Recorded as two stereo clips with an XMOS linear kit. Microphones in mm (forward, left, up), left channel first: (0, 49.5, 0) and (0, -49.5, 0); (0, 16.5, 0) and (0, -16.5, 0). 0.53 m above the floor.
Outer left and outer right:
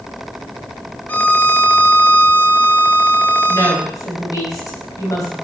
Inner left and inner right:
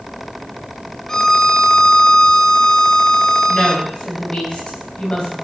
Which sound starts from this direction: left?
A woman speaking, at 3.5 s.